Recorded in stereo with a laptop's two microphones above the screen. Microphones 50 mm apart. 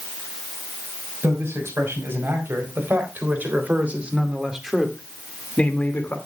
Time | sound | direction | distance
1.2 | a man speaking | 60° right (ahead or behind) | 5.5 m